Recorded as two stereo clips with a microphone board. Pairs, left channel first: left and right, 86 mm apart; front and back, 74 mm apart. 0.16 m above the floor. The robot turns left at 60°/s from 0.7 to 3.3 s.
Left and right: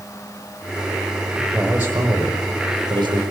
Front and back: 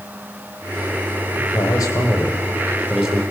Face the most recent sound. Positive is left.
turn(degrees=-115)